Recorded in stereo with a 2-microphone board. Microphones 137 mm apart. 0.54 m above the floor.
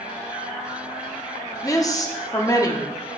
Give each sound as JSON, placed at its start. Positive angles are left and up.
{"t": 1.6, "sound": "a woman speaking", "side_deg": 25, "distance_m": 0.7}